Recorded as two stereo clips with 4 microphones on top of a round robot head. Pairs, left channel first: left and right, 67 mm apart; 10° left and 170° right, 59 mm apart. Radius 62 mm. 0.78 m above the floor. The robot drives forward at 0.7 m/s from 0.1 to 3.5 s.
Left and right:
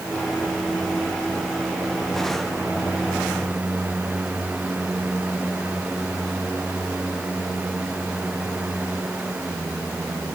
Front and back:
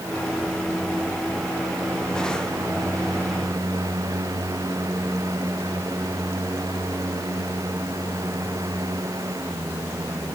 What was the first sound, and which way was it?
Only background noise.